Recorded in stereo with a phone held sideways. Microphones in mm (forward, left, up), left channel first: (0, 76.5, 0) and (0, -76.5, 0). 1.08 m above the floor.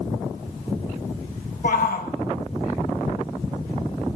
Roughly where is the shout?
Left.